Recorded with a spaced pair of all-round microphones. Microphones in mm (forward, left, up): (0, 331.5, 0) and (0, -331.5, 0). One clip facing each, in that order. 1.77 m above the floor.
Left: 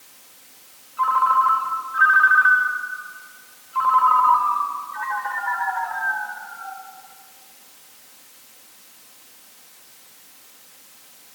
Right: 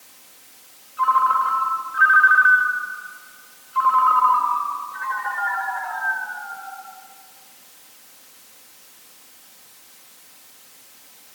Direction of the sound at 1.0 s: 30° left (ahead or behind).